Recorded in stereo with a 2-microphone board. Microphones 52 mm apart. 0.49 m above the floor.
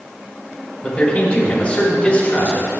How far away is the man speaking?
About 3.5 m.